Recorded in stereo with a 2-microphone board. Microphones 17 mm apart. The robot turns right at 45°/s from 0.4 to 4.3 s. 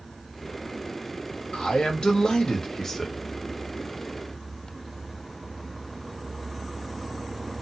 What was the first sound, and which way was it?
A man speaking, 90° left.